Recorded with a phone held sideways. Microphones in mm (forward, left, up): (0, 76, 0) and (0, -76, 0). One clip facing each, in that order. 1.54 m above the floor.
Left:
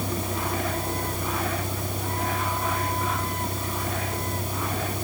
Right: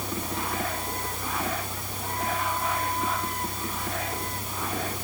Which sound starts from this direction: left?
A vehicle, at 0.0 s.